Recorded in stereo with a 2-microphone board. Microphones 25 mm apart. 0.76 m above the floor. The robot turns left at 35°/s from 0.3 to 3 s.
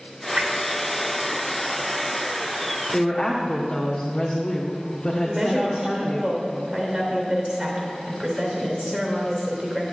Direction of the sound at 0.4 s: 65° right (ahead or behind).